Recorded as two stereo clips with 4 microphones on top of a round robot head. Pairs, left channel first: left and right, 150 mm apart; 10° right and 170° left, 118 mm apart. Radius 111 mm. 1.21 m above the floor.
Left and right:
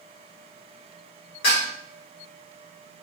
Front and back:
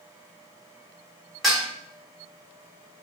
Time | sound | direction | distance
1.4 | dishes clattering | 80° left | 1.4 m